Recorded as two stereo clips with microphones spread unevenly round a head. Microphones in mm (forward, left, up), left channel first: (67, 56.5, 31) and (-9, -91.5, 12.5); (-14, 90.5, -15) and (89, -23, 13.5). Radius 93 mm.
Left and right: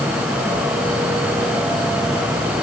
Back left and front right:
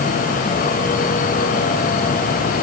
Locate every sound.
Only background noise.